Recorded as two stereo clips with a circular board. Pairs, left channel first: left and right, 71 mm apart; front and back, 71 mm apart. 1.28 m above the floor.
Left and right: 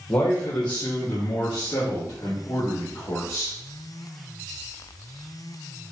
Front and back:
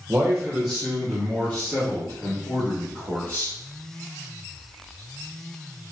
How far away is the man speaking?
About 0.9 m.